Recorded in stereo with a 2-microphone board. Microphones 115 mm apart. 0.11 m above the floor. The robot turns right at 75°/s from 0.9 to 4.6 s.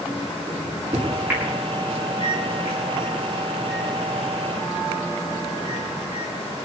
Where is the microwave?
50° right (ahead or behind), 8.5 m; by 6.3 s 45° right (ahead or behind), 8.5 m.